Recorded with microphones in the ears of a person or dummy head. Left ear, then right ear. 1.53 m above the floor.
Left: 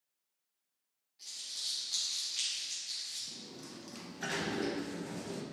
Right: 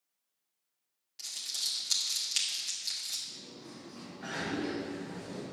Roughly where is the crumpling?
Right.